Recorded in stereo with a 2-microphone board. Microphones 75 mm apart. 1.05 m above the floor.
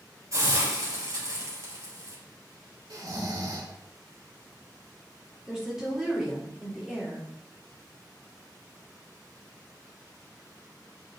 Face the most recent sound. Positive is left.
turn(degrees=-5)  # may be behind; listen again after turning